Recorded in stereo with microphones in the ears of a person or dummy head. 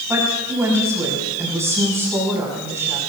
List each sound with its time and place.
0.1 s a woman speaking: 15° right (ahead or behind), 6 m